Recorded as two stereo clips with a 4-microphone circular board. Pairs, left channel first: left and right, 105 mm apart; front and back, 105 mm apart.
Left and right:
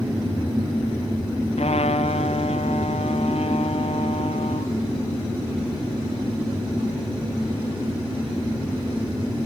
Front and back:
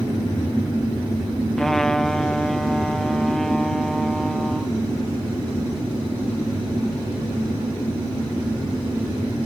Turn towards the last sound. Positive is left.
turn(degrees=85)